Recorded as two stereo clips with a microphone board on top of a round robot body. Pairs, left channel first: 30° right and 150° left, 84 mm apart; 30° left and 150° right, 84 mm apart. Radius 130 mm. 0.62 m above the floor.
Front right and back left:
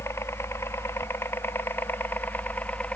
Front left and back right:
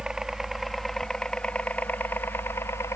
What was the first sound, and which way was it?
A helicopter, 70° right.